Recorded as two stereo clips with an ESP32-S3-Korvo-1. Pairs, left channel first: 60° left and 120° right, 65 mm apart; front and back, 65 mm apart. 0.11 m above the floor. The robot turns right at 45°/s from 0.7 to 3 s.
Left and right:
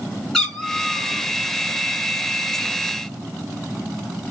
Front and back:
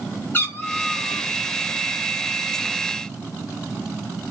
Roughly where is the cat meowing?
Ahead.